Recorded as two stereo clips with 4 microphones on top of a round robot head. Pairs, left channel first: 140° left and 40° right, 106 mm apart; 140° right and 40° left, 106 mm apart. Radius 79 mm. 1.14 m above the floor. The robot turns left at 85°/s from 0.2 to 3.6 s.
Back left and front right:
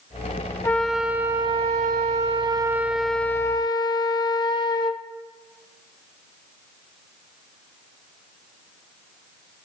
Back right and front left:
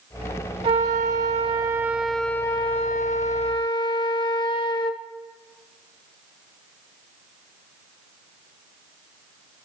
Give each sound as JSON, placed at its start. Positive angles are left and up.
{"t": 0.6, "sound": "a flute", "azimuth_deg": 75, "distance_m": 0.6}